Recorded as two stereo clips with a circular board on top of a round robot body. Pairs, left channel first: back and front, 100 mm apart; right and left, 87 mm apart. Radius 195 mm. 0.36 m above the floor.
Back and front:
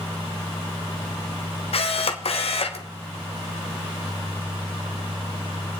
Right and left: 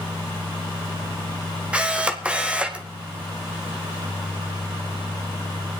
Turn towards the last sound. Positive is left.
turn(degrees=165)